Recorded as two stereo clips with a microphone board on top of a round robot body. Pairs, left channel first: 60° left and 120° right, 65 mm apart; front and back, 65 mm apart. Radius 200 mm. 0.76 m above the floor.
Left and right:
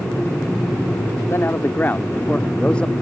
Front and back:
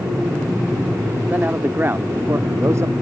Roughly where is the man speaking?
Behind left.